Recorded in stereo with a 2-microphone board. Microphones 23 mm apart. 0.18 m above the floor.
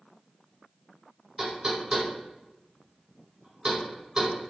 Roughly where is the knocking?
Right.